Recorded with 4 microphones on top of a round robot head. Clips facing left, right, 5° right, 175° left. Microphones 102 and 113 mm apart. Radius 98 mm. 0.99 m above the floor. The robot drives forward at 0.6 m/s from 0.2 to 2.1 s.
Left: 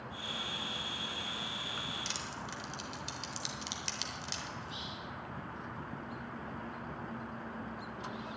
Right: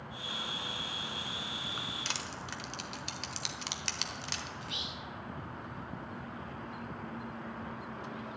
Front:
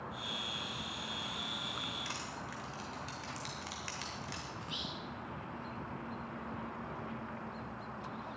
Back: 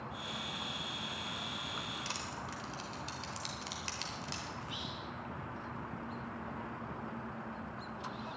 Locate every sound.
2.0 s crushing: 110° right, 0.9 m
4.6 s whispering: 70° right, 1.3 m